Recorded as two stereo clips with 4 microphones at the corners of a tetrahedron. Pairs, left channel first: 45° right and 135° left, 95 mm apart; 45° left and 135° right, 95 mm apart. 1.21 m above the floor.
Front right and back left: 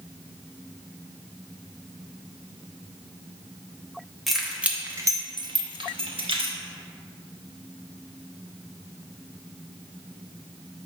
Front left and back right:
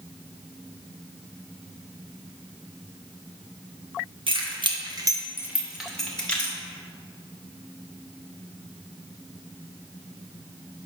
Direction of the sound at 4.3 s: 135° right.